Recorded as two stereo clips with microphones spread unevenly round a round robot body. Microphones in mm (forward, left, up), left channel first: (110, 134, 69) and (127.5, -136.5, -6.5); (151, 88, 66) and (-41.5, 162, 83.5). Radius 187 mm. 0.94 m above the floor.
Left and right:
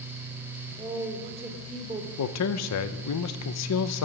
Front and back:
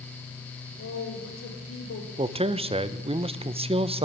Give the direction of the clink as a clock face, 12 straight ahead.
I don't hear a clink.